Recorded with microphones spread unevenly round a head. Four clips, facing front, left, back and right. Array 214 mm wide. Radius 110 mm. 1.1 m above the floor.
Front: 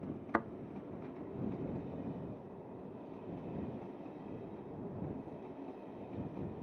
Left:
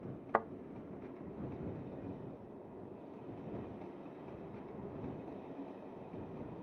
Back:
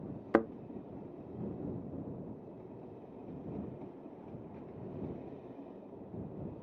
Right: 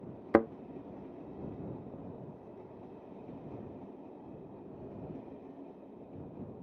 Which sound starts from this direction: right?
A thud, at 0.3 s.